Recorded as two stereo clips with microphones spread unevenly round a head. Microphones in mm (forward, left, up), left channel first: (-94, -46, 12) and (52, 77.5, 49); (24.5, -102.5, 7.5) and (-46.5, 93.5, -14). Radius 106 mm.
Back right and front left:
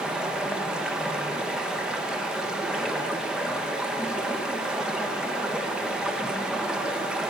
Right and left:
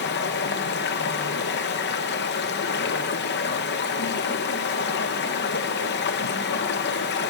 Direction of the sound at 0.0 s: 40° right.